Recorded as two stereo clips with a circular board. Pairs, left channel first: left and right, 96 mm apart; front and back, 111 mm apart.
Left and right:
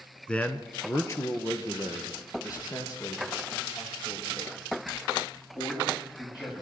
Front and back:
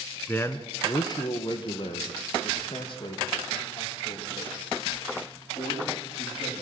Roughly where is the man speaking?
Ahead left.